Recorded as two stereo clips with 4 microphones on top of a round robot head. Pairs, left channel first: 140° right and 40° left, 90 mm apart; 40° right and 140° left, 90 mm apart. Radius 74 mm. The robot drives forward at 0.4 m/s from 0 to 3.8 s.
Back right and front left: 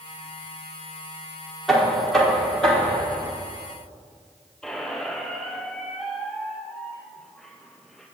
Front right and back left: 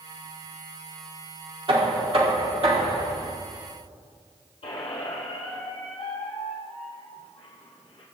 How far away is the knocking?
About 2 m.